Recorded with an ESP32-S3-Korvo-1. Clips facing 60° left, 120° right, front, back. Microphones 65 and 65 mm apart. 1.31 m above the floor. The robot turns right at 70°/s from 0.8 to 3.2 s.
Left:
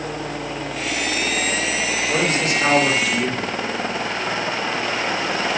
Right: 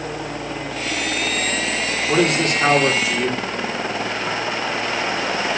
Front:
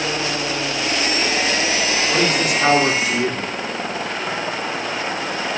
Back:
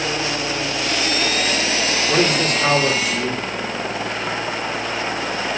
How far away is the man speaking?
About 3.5 m.